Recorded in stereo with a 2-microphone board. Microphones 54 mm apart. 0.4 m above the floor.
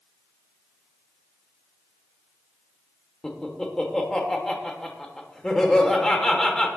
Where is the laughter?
15° left (ahead or behind), 1.3 m.